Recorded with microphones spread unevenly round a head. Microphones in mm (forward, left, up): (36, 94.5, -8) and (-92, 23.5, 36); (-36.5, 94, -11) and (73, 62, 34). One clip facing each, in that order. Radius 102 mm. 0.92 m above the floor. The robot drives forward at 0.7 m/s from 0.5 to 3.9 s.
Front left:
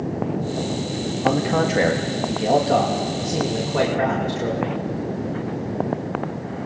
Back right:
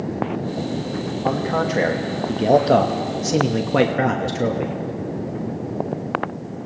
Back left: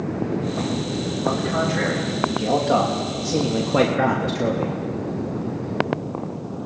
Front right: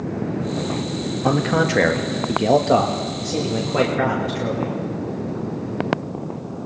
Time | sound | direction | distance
1.2 | a man speaking | 35° right | 1.3 m